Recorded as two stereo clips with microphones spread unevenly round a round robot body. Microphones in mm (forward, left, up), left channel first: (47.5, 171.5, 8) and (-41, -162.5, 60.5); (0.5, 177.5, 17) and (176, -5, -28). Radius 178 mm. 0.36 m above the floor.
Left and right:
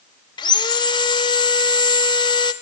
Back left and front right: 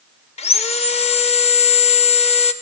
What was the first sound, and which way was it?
Sawing, 85° left.